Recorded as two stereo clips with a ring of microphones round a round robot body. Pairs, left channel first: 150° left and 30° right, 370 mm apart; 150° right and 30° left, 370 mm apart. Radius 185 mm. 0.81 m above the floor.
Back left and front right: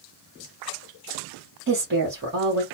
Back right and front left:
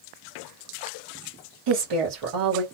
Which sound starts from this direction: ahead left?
A woman speaking, at 1.7 s.